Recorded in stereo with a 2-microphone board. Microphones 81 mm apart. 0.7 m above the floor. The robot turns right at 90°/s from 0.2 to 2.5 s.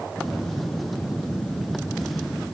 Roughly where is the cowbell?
No cowbell in this recording.